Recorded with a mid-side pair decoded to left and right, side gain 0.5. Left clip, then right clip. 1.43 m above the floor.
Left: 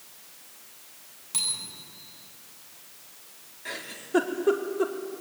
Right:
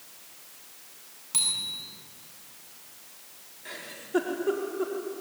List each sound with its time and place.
1.3 s a bicycle bell: 10° right, 9.5 m
3.6 s a giggle: 30° left, 4 m